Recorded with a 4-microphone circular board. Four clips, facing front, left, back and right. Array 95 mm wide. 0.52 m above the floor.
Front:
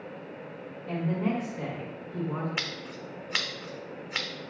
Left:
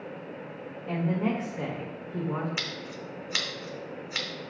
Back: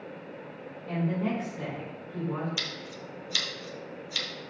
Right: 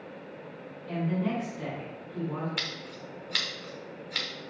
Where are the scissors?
10° left, 0.8 m.